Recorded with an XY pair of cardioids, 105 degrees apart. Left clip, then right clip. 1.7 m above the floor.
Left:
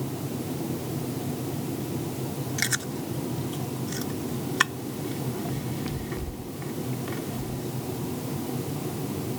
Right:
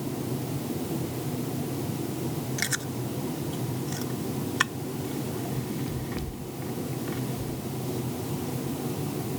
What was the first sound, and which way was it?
Chewing, 15° left.